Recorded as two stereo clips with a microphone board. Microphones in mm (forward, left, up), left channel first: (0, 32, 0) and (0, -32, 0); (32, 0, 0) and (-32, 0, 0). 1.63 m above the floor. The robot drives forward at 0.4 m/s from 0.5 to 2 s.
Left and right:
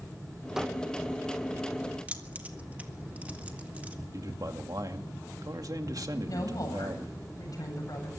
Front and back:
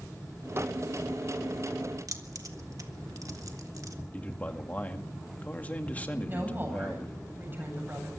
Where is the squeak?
165° right, 0.8 m; by 0.7 s 170° right, 0.9 m.